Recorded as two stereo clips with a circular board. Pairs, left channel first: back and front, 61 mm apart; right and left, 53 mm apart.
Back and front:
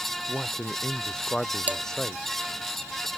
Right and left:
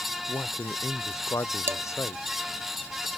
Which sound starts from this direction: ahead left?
Dishes clattering, at 1.7 s.